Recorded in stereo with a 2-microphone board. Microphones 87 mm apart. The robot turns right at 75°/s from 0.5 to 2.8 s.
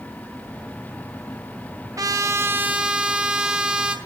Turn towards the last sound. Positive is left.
turn(degrees=-20)